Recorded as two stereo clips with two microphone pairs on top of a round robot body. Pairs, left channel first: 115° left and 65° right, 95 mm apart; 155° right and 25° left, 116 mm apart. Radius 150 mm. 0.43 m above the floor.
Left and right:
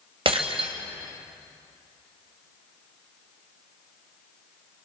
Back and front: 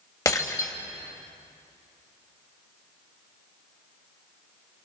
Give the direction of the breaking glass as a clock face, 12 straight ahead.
3 o'clock.